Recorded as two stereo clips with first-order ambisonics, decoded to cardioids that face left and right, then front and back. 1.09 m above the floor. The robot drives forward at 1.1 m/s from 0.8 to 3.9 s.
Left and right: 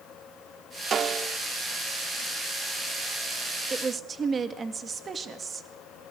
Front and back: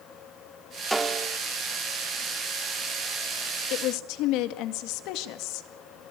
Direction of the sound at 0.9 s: 100° right.